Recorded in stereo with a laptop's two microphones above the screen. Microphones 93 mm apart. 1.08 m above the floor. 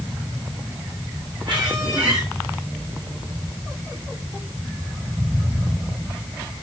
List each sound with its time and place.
1.4 s a squeak: 50° right (ahead or behind), 9.5 m